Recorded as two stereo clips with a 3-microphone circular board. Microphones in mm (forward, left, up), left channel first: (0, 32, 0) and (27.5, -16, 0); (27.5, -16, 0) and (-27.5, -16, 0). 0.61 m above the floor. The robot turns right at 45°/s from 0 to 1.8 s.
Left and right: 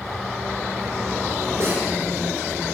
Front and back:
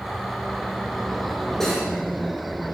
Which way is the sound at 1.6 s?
80° right.